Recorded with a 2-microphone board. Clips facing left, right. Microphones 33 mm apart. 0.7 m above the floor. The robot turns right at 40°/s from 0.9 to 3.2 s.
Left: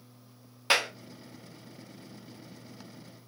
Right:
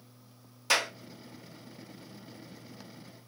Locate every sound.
0.7 s a clap: 30° left (ahead or behind), 1.1 m